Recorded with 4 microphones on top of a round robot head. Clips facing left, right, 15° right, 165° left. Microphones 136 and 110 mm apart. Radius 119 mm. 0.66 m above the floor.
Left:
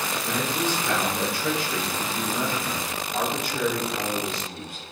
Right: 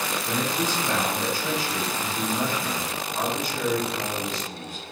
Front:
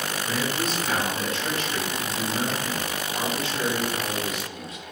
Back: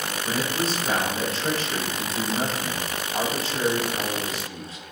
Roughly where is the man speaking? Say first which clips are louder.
Left 1 dB, back 2 dB; left.